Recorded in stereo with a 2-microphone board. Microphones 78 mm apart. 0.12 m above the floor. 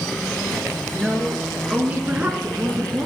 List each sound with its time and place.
0.9 s a woman speaking: 5° right (ahead or behind), 2.5 m; by 3.1 s 25° right (ahead or behind), 2 m